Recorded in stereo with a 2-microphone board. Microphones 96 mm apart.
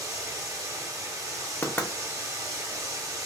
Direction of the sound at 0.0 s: 30° right (ahead or behind).